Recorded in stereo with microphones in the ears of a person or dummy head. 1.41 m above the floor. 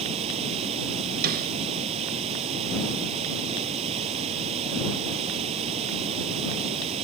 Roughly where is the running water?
Right.